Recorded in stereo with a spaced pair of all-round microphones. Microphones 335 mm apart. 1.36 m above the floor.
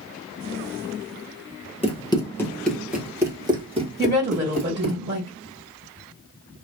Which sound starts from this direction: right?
A woman speaking, at 4.0 s.